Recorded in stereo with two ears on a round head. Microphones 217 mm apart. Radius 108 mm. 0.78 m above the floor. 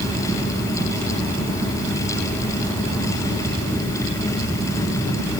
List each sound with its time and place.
Only background noise.